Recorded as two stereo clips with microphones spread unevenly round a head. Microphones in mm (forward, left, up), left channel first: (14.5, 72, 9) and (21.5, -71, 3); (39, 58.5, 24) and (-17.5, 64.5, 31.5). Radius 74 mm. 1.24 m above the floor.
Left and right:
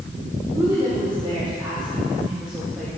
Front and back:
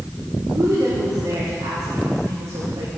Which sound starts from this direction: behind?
A woman speaking, at 0.6 s.